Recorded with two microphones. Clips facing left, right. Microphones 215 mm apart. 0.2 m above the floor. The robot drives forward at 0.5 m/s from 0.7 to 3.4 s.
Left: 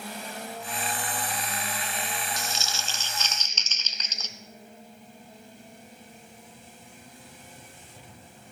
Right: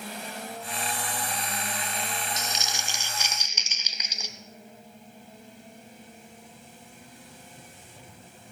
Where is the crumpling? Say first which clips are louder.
Even; 20° right (ahead or behind), 0.6 m; by 4.3 s 10° right (ahead or behind), 1.1 m.